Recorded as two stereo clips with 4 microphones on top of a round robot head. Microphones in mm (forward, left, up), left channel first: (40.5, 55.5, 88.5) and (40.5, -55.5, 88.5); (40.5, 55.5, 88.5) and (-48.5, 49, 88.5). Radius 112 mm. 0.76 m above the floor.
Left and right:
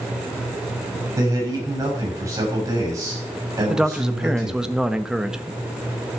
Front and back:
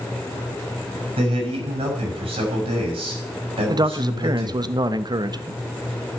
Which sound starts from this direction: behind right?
A man speaking, at 1.2 s.